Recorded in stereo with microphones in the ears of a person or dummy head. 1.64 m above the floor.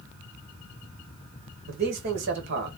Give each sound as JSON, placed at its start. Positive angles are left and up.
{"t": 1.7, "sound": "a man speaking", "side_deg": -60, "distance_m": 1.6}